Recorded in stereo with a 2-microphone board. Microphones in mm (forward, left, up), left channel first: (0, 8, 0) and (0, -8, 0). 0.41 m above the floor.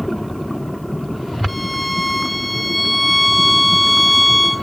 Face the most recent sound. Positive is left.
turn(degrees=0)  # may be behind; listen again after turning